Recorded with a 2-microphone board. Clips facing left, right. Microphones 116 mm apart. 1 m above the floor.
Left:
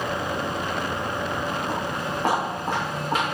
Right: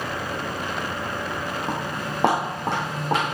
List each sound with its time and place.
1.7 s footsteps: 70° right (ahead or behind), 3 m; by 3.2 s 75° right (ahead or behind), 4 m